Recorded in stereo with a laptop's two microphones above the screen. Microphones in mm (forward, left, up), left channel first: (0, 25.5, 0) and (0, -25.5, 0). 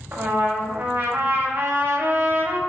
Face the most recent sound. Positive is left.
turn(degrees=-45)  # may be behind; listen again after turning